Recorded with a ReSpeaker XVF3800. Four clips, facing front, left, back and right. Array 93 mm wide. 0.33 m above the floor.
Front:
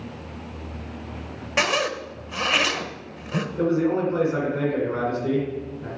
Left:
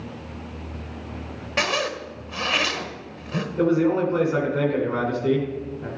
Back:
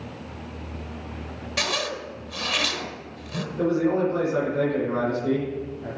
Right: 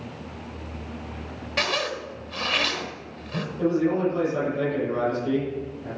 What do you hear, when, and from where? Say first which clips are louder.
1.6 s a zipper: left 2 dB, front 5 dB; 20° left, 1.1 m
3.6 s a man speaking: left 3 dB, even; 85° left, 3 m